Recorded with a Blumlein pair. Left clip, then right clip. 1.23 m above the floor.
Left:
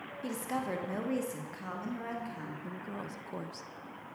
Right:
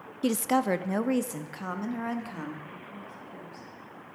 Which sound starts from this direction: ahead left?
A woman speaking, at 2.6 s.